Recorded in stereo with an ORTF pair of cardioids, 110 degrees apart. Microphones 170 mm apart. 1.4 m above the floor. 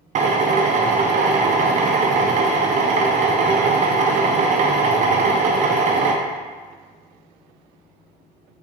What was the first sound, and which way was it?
A drill, 45° right.